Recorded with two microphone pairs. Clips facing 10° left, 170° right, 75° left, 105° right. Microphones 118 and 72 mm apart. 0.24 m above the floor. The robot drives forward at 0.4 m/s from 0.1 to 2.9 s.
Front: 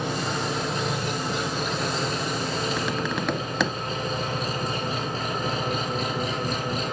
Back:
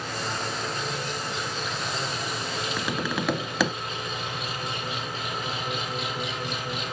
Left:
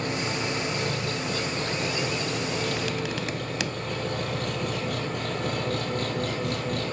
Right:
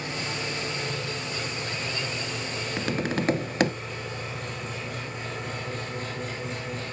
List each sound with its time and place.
0.0 s an engine running: 40° left, 2.5 m; by 6.9 s 65° left, 1.7 m
2.8 s tapping: 70° right, 0.6 m; by 3.7 s 80° right, 0.5 m